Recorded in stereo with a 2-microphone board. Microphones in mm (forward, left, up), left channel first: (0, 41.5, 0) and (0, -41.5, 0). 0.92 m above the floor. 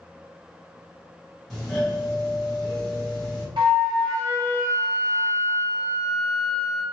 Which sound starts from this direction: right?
A flute, at 3.6 s.